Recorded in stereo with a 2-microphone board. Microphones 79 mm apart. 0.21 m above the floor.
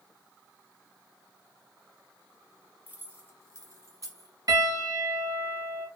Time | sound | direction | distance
2.9 | keys jangling | 20° right (ahead or behind) | 1.4 m
4.5 | a piano | 50° right (ahead or behind) | 1.5 m